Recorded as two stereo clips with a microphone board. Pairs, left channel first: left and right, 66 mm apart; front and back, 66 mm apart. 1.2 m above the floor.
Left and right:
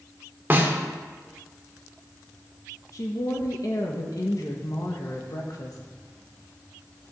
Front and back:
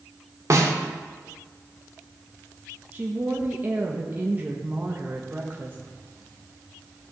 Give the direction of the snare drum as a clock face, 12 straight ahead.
5 o'clock.